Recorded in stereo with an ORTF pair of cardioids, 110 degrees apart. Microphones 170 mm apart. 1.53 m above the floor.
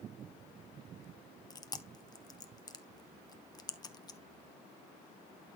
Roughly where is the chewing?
Ahead left.